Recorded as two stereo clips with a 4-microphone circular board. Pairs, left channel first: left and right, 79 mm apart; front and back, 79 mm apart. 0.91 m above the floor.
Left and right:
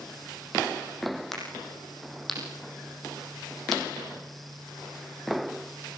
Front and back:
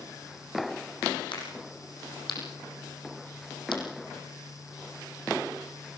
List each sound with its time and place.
1.3 s a crack: 5° left, 8 m